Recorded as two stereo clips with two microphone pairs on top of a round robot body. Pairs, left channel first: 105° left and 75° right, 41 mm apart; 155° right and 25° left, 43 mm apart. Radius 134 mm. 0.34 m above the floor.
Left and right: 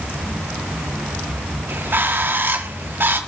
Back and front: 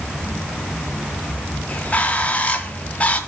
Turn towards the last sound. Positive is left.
turn(degrees=-100)